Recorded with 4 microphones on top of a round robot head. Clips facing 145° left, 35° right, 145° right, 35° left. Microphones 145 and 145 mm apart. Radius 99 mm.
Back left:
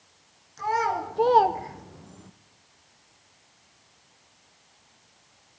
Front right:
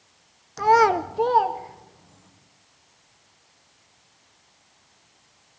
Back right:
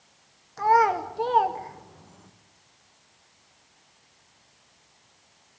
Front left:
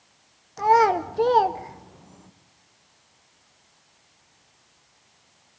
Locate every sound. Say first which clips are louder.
0.6 s a child speaking: front right 9 dB, front left 2 dB; 40° right, 0.9 m; by 2.3 s 115° left, 1.7 m